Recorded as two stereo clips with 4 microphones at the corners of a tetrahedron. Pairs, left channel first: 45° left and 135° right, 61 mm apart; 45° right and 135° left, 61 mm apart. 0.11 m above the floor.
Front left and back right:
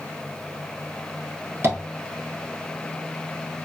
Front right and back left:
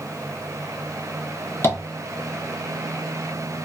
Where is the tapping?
90° right, 1.2 m.